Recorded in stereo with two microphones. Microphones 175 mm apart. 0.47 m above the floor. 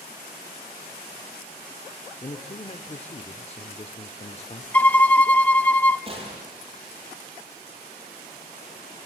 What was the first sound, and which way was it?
A man speaking, 35° left (ahead or behind).